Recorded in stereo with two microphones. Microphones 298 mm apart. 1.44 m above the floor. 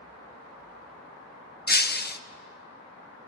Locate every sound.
1.7 s breaking glass: 35° left (ahead or behind), 0.6 m